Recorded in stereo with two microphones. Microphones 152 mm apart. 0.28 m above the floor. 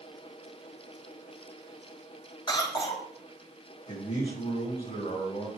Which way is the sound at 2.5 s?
30° left (ahead or behind).